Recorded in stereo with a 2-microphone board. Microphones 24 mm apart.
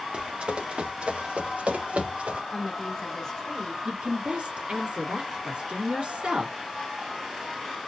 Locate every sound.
0.1 s running footsteps: 55° right (ahead or behind), 2 m; by 2.4 s 85° right, 2.5 m
2.5 s a woman speaking: 20° left (ahead or behind), 1.9 m
3.9 s a woman speaking: 65° right (ahead or behind), 3 m